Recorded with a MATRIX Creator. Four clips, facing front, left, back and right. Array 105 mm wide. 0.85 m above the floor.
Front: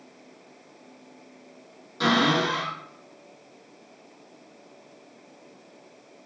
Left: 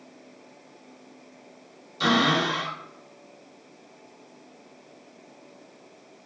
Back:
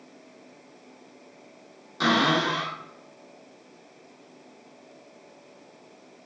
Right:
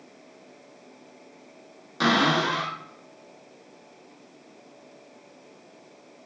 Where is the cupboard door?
100° right, 1.6 m.